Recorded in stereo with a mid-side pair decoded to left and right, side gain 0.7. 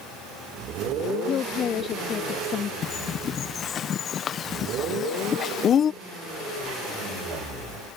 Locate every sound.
1.3 s a woman speaking: 40° left
2.8 s a bird: 40° left